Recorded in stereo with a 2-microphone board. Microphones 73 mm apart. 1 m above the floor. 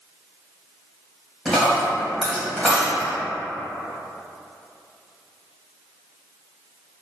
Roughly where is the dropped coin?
Centre.